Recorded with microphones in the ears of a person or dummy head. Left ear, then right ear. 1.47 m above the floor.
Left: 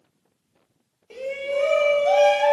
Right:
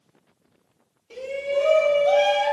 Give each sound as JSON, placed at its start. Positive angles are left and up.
{"t": 1.1, "sound": "a shout", "side_deg": 30, "distance_m": 1.1}